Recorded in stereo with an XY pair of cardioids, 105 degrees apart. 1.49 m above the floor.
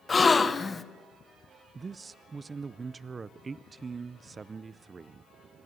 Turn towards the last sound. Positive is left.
turn(degrees=-35)